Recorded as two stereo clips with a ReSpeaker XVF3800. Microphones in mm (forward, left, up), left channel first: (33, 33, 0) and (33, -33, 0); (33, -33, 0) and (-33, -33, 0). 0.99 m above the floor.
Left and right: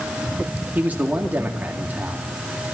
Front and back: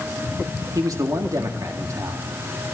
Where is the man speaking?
155° right, 1.9 m.